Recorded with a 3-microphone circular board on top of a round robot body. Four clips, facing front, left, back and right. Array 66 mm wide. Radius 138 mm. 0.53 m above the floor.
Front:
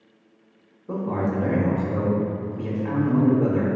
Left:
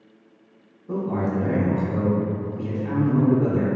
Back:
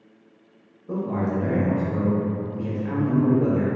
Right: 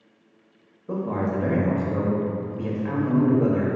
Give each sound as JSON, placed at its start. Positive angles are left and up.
{"t": 0.9, "sound": "a man speaking", "azimuth_deg": -60, "distance_m": 0.8}